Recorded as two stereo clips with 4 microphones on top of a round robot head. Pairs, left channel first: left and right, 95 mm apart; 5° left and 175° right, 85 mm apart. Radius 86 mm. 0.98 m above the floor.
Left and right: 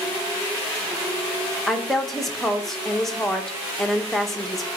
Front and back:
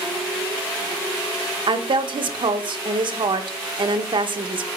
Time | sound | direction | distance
1.7 | a woman speaking | straight behind | 0.9 m